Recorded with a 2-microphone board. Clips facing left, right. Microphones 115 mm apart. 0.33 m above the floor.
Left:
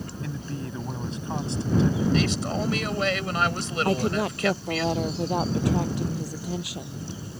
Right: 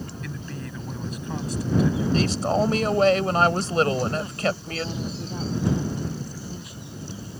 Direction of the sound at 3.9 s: 80° left.